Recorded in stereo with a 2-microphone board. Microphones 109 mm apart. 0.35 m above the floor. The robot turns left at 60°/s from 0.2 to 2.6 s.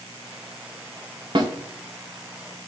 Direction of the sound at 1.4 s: 45° right (ahead or behind).